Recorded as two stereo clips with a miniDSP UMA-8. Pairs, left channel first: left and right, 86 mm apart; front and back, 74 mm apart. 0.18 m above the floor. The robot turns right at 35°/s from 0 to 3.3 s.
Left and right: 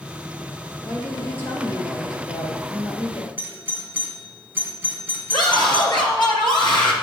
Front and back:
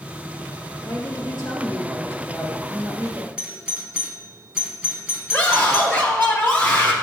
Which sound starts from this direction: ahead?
A woman speaking, at 0.8 s.